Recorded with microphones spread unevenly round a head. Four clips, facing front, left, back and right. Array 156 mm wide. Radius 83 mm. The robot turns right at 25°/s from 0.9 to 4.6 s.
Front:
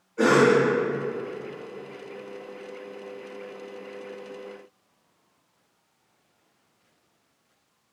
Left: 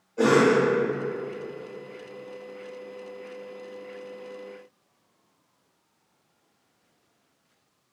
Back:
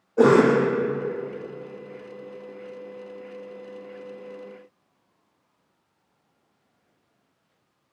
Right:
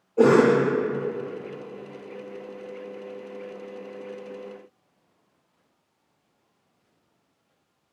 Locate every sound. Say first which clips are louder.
0.2 s a cough: right 3 dB, back 2 dB; 150° right, 0.8 m